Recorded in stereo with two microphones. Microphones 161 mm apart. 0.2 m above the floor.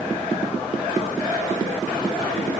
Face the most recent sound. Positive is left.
No sound to turn to.